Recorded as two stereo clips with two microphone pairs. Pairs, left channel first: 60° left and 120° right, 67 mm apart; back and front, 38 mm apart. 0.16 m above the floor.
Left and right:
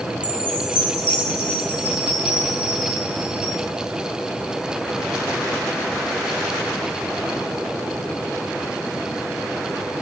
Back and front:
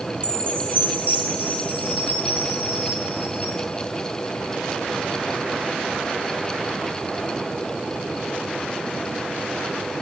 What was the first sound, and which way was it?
A chime, 50° right.